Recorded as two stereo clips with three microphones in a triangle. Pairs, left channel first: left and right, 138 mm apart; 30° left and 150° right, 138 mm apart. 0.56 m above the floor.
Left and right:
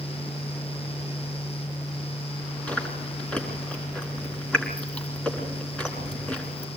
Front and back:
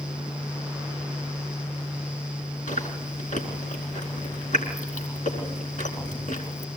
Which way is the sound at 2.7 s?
5° left.